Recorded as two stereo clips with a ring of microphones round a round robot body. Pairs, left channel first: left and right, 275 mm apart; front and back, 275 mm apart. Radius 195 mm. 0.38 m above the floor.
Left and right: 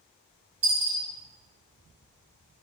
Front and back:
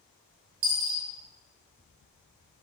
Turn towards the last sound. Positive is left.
turn(degrees=-165)